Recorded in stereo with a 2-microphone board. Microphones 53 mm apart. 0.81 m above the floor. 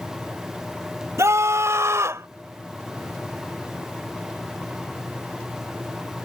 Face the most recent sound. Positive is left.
turn(degrees=-60)  # may be behind; listen again after turning